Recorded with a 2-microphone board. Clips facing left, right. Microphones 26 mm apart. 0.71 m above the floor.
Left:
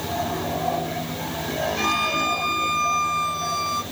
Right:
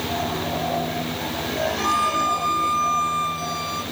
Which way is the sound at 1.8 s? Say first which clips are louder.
Right 1 dB; 60° left (ahead or behind).